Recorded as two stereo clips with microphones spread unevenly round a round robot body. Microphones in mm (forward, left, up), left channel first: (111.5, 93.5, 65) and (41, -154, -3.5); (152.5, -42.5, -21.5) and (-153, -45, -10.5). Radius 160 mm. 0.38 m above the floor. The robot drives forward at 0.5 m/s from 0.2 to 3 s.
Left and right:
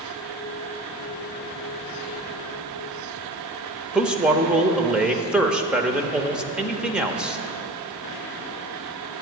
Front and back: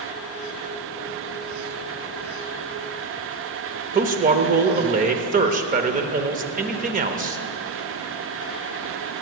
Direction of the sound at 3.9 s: 150° right.